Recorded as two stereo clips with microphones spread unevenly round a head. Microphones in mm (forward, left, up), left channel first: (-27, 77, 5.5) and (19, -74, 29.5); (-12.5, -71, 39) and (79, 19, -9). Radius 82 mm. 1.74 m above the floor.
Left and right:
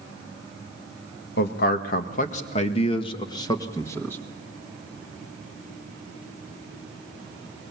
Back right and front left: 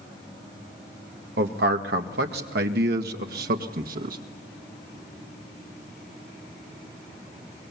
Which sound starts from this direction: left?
A man speaking, at 1.4 s.